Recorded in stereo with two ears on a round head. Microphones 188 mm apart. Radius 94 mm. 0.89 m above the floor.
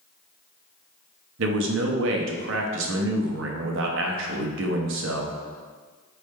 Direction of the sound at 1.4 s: 65° right (ahead or behind).